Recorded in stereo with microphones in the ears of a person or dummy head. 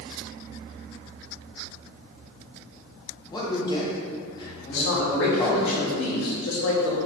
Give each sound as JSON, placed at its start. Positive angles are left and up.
{"t": 3.3, "sound": "a man speaking", "side_deg": 25, "distance_m": 0.8}
{"t": 4.7, "sound": "a man speaking", "side_deg": 75, "distance_m": 0.6}